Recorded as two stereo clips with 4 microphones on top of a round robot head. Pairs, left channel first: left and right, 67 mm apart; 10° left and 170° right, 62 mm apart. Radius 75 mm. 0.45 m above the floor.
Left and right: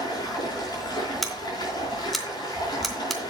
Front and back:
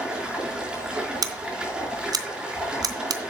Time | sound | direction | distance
0.0 | running water | 115° left | 5 m
1.2 | scissors | straight behind | 1.2 m